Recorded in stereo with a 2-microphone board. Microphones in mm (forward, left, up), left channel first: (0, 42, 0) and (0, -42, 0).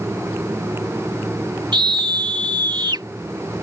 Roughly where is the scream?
Right.